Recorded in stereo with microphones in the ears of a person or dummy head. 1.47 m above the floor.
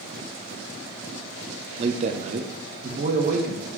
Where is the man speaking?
35° right (ahead or behind), 0.5 m; by 3.7 s 50° right (ahead or behind), 1.4 m.